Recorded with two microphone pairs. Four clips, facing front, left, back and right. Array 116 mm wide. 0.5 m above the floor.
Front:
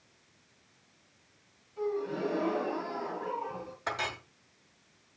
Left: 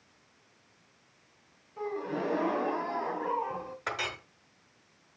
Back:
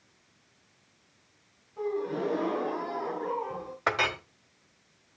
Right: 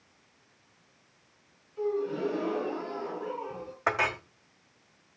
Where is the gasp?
110° left, 1.7 m.